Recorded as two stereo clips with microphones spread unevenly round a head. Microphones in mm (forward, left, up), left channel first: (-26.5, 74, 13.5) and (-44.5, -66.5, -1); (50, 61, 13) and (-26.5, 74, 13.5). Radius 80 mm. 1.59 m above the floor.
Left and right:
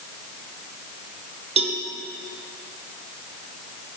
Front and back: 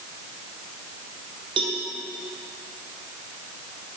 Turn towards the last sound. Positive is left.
turn(degrees=-145)